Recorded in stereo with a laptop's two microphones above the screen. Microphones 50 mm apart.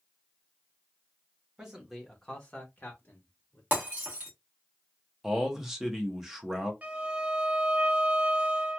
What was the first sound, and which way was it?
A man speaking, 15° right (ahead or behind).